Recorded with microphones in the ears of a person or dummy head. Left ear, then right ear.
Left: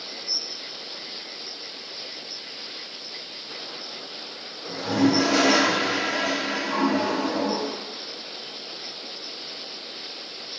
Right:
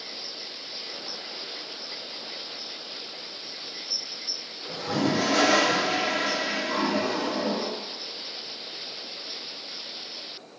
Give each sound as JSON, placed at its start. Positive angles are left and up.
{"t": 4.7, "sound": "a toilet flushing", "side_deg": 55, "distance_m": 1.8}